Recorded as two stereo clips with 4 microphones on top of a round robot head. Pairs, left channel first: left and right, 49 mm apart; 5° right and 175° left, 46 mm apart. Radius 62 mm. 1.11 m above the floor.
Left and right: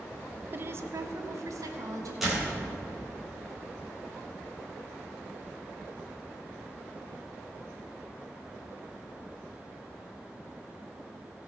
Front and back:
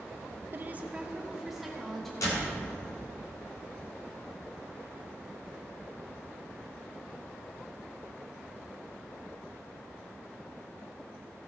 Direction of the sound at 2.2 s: Straight ahead.